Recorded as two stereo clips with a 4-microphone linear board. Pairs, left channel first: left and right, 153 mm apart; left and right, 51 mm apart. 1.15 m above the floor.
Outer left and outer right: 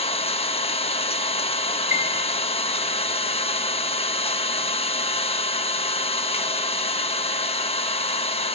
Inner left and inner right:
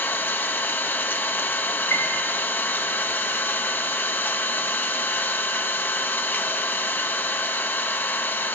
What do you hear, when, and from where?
0.0 s an engine running: 40° left (ahead or behind), 1.1 m
1.9 s a piano: 55° left (ahead or behind), 5.5 m